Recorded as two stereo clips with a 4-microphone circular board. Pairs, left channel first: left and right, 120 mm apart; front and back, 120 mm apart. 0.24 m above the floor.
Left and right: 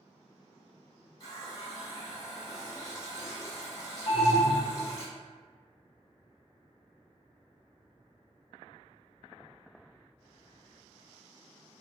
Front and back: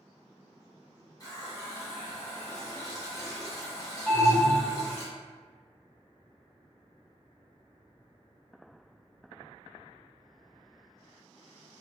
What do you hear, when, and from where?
1.2 s a running tap: 50° left, 1.2 m
4.1 s an alarm: 70° left, 1.5 m